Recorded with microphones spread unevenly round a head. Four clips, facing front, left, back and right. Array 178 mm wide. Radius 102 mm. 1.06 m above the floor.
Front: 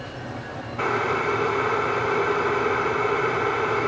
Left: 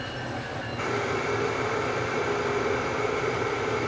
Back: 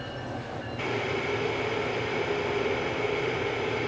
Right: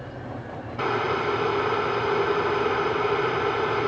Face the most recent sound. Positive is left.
turn(degrees=-30)